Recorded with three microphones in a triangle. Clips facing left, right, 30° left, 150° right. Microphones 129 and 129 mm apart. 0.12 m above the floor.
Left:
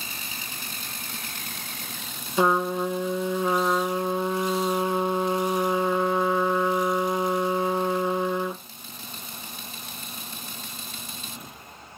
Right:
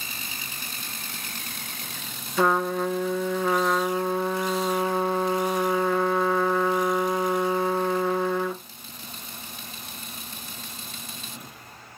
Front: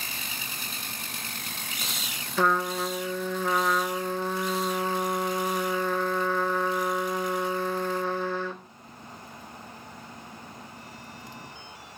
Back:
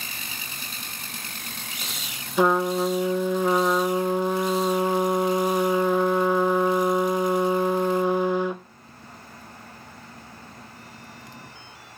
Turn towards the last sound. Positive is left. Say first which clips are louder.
# even, back 5 dB
turn(degrees=145)